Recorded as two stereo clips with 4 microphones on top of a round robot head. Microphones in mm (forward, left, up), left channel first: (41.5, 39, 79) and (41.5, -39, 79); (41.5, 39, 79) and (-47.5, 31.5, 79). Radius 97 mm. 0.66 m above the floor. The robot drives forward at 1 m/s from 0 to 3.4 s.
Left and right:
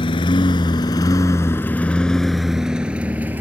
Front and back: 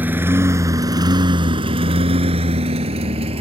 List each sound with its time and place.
0.0 s a lawn mower: 115° left; by 3.4 s 160° right